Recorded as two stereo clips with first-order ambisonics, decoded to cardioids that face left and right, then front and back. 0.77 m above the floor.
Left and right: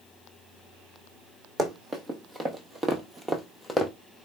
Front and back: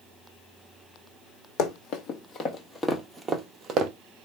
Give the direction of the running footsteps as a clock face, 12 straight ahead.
1 o'clock.